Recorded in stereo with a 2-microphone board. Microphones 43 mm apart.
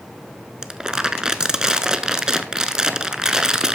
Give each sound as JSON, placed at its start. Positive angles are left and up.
{"t": 0.6, "sound": "crumpling", "side_deg": -15, "distance_m": 0.6}